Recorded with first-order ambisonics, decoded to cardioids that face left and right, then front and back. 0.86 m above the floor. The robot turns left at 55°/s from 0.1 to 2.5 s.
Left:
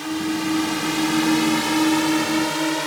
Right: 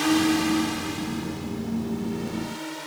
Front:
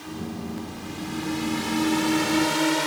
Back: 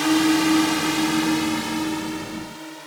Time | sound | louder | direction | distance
0.0 | a drone | right 3 dB, back 17 dB | 155° right | ?